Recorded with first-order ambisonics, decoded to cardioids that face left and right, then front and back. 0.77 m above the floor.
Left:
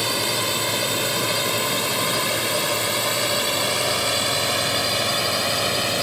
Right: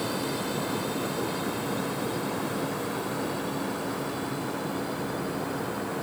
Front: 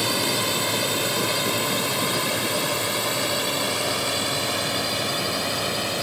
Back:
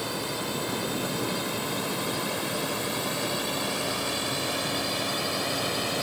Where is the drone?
50° left; by 6.0 s 80° left.